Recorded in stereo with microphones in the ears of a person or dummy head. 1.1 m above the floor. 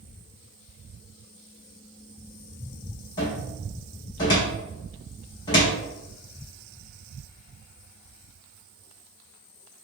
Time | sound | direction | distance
3.2 | a cupboard door | 25° left (ahead or behind) | 0.8 m